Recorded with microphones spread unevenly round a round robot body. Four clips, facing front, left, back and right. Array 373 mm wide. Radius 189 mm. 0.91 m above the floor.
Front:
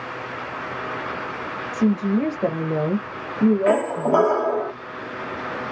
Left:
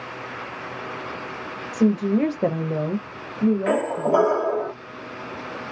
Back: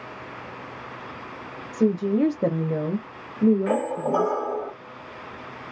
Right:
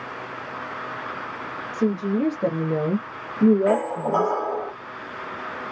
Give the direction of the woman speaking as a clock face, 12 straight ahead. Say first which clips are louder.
Left 3 dB, front 1 dB; 7 o'clock.